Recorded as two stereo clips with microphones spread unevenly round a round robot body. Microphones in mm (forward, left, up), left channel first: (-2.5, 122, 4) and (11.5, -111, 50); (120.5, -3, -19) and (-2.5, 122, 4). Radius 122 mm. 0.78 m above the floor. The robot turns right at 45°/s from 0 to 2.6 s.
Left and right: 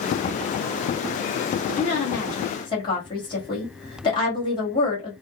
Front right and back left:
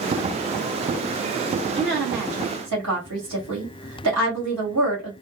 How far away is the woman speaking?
About 1.7 m.